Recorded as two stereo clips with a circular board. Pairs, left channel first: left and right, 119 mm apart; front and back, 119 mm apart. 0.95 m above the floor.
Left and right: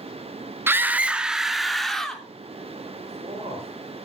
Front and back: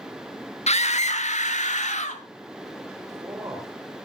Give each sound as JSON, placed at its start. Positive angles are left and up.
{"t": 0.7, "sound": "a scream", "azimuth_deg": -20, "distance_m": 1.3}
{"t": 3.0, "sound": "a man speaking", "azimuth_deg": -120, "distance_m": 4.0}